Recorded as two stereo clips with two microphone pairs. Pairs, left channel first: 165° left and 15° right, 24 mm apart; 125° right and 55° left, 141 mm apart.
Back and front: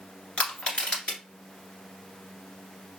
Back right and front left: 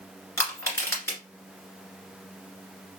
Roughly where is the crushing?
Behind.